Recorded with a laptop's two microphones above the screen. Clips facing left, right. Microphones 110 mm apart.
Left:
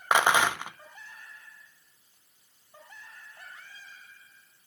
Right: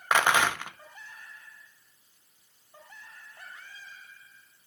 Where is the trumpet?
I don't hear a trumpet.